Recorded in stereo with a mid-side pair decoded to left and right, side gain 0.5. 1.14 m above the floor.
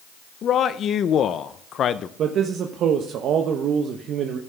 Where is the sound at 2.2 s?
60° right, 0.8 m.